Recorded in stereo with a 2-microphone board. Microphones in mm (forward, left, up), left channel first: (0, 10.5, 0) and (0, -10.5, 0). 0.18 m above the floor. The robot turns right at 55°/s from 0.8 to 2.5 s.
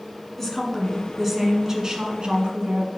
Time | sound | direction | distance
0.4 | a woman speaking | 165° left | 1.7 m